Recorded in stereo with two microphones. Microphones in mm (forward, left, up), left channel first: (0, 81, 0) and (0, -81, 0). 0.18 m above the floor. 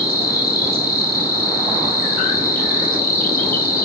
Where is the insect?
65° left (ahead or behind), 0.9 m.